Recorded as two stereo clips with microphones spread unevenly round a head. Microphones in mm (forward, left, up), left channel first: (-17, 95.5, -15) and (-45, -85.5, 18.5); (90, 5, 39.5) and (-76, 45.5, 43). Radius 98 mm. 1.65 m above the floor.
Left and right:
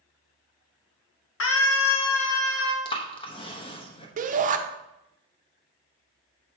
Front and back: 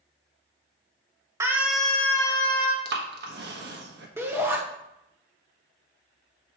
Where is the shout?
120° right, 0.8 m.